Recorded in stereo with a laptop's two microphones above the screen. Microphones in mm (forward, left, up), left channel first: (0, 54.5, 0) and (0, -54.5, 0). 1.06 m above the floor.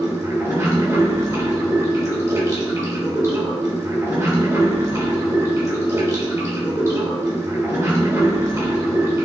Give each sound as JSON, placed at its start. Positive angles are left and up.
{"t": 0.0, "sound": "running water", "side_deg": -30, "distance_m": 3.0}